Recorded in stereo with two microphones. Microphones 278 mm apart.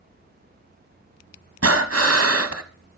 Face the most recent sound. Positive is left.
turn(degrees=-60)  # may be behind; listen again after turning